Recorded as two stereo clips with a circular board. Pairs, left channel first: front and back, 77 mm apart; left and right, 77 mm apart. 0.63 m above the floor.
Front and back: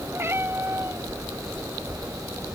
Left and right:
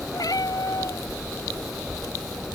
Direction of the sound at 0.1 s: 125° left.